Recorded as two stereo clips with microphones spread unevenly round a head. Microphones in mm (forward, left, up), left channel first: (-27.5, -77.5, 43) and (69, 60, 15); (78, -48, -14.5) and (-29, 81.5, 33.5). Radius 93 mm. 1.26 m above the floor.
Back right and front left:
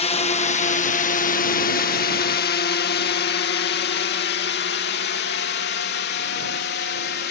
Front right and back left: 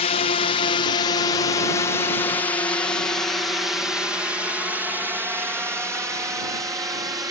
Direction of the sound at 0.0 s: 75° right.